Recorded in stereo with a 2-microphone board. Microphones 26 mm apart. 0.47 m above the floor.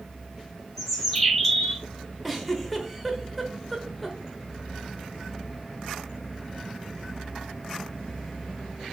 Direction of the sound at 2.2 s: Centre (ahead or behind).